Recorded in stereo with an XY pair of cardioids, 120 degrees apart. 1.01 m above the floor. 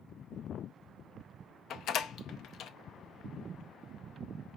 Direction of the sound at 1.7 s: 60° left.